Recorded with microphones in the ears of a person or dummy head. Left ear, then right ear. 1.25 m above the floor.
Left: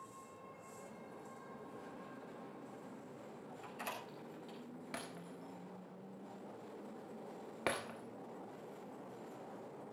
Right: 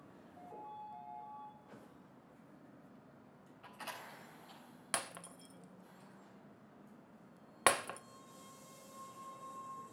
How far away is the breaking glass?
About 1.0 m.